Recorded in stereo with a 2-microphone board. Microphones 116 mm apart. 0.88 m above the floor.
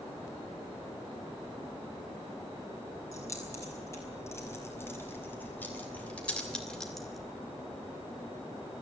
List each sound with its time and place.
3.1 s keys jangling: 25° left (ahead or behind), 5.5 m; by 7.2 s centre (ahead or behind), 2.5 m